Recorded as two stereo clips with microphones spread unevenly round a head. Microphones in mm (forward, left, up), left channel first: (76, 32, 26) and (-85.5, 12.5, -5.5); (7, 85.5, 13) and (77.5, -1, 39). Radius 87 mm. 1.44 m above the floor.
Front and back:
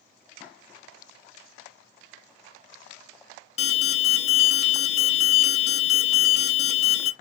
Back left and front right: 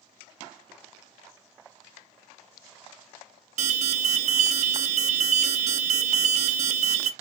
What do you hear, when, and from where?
3.6 s an alarm: 45° right, 0.5 m